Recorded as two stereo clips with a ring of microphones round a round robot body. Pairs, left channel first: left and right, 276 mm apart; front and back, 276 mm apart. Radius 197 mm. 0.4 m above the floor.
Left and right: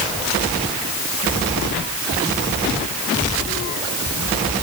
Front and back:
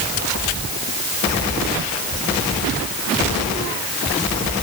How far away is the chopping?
I don't hear chopping.